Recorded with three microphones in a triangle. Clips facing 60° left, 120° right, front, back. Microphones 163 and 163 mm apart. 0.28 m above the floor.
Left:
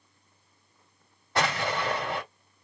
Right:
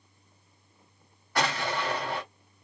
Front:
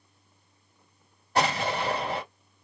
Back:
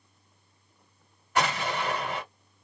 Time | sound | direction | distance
1.4 | an explosion | 15° left | 1.7 m